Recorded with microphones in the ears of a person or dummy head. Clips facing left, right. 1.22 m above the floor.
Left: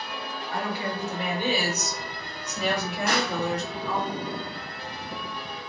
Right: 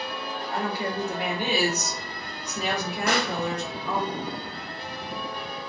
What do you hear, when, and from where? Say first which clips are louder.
0.5 s a woman speaking: right 1 dB; 35° right (ahead or behind), 1.6 m; by 4.1 s 75° right (ahead or behind), 1.9 m
3.1 s a pop: right 1 dB; 75° right (ahead or behind), 2.0 m